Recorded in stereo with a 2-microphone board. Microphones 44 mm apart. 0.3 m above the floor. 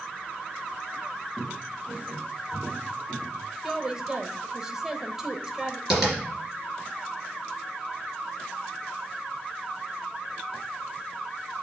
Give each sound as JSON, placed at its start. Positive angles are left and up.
{"t": 1.4, "sound": "footsteps", "side_deg": 20, "distance_m": 4.0}
{"t": 3.6, "sound": "a woman speaking", "side_deg": -15, "distance_m": 0.9}
{"t": 5.9, "sound": "tapping", "side_deg": -5, "distance_m": 3.0}